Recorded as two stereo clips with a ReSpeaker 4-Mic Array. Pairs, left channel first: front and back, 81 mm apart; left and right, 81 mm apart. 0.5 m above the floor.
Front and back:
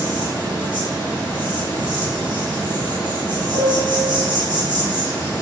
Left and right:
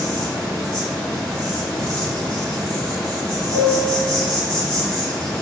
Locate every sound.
0.0 s an insect: 170° left, 2.0 m
3.5 s a piano: 65° left, 0.8 m